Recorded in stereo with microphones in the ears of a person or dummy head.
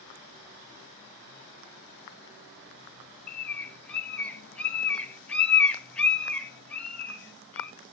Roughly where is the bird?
Centre.